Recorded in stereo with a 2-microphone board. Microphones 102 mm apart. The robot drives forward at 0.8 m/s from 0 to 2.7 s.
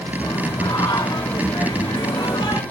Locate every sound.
0.2 s singing: 40° left (ahead or behind), 2.5 m; by 2.6 s 45° left (ahead or behind), 2 m